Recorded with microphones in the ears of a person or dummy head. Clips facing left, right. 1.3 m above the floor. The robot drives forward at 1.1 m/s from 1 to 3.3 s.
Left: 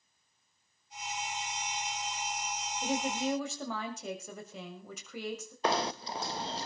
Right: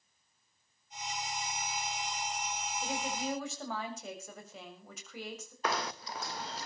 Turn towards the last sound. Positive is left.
turn(degrees=25)  # may be behind; listen again after turning